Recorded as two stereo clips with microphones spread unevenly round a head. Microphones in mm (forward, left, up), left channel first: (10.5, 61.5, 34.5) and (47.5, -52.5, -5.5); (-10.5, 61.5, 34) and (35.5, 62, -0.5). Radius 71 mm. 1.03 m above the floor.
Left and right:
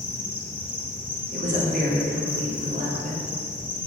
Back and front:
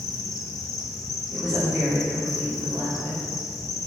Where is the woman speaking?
75° right, 3 m.